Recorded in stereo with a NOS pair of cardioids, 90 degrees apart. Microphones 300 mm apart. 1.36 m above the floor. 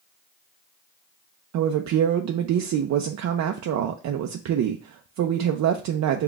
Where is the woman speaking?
65° right, 0.6 m.